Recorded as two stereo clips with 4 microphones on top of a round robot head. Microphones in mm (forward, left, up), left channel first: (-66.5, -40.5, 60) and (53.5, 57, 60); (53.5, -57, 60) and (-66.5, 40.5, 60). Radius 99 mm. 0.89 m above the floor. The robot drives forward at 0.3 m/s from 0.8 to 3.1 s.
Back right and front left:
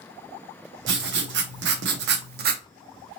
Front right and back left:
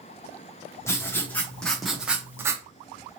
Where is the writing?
35° left, 0.9 m; by 2.6 s 70° left, 0.6 m.